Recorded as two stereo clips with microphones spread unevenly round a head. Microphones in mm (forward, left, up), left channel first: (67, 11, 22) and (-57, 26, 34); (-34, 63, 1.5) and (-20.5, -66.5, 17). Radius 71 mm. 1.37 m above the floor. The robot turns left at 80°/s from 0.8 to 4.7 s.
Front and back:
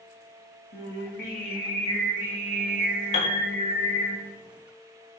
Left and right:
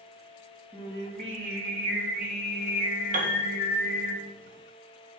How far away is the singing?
About 5 m.